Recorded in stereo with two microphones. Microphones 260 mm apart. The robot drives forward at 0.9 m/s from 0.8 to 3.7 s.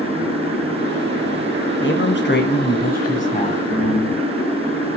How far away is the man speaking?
About 1.2 m.